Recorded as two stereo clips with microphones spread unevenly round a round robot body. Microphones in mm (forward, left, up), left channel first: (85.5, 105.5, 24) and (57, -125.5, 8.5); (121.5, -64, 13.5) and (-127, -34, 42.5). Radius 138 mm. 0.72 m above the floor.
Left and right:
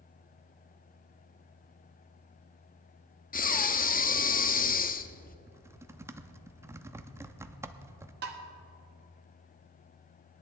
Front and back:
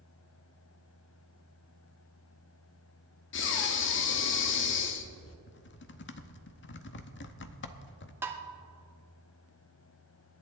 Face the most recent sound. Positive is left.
turn(degrees=-105)